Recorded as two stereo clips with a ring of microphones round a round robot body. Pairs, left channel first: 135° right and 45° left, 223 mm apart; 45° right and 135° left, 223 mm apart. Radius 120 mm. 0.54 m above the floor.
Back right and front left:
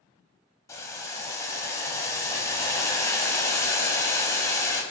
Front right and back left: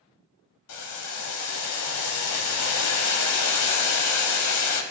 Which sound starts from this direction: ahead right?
Boiling, at 0.7 s.